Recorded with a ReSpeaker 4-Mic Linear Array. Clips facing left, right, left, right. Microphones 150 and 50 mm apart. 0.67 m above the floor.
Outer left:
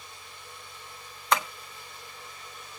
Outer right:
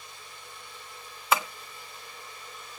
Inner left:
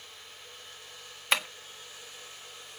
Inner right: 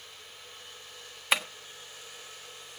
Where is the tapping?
5° right (ahead or behind), 1.4 m.